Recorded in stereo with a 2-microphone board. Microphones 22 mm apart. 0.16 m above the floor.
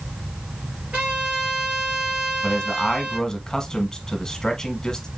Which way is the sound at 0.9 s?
65° right (ahead or behind).